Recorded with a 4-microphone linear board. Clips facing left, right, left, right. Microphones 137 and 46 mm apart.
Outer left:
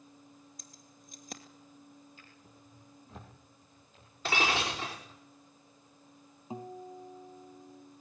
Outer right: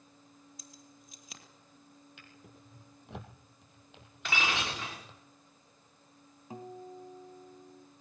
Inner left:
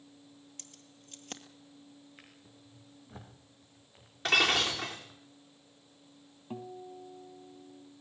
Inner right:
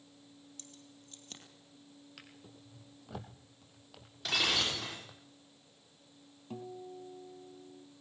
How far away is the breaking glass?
About 5.5 m.